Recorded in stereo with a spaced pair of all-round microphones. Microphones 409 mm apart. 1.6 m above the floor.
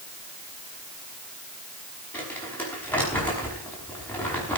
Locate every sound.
2.1 s crumpling: 5° left (ahead or behind), 5.5 m